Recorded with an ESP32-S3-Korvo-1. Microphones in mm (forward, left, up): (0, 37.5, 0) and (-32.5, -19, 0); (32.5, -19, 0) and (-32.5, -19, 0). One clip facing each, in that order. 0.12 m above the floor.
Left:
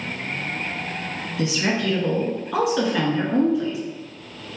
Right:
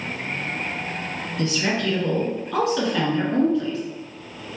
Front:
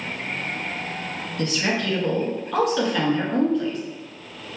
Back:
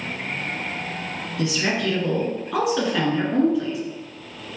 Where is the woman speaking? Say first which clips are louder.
Left 1 dB, back 1 dB; 105° left, 1.3 m.